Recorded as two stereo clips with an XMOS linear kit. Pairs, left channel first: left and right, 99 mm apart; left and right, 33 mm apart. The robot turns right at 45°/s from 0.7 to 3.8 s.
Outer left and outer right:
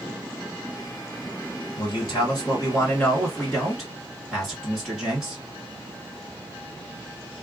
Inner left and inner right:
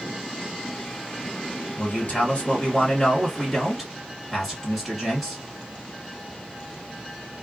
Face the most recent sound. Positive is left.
turn(degrees=-175)